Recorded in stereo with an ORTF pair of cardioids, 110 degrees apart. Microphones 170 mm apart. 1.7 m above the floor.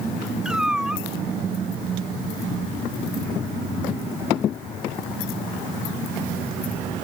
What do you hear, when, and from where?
0.5 s a cat meowing: 5° right